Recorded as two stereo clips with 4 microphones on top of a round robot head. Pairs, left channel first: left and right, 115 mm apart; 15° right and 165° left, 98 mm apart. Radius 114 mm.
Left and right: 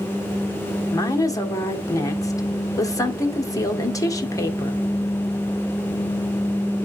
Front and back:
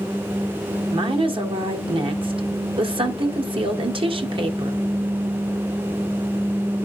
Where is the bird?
I don't hear a bird.